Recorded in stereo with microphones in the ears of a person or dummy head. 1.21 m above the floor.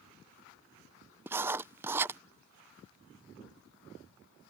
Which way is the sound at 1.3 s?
5° right (ahead or behind).